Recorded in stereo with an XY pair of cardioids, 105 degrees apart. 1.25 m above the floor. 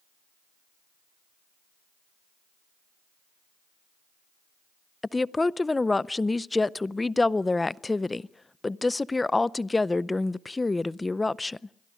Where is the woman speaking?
20° left, 0.5 m.